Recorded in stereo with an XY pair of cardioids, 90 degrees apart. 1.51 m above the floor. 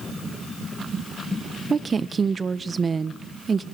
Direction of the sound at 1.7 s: 40° right.